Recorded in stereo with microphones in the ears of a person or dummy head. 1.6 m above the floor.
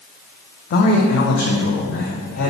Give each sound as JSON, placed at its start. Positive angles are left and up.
{"t": 0.7, "sound": "a man speaking", "side_deg": 50, "distance_m": 0.9}